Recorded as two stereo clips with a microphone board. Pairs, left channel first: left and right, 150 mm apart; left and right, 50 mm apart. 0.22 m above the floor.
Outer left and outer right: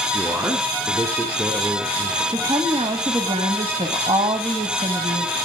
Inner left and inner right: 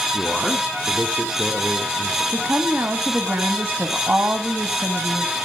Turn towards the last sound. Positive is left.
turn(degrees=-40)  # may be behind; listen again after turning